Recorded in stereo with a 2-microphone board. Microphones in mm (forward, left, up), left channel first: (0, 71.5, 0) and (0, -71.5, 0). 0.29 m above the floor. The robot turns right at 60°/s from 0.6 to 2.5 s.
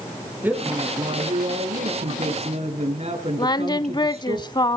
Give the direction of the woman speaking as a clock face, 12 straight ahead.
6 o'clock.